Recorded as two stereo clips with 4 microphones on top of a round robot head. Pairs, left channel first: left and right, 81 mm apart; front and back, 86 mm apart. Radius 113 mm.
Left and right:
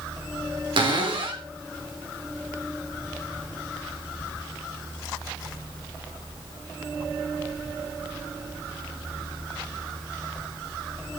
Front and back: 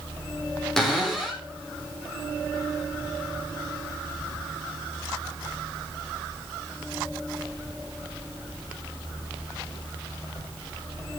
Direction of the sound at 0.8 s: 85° right.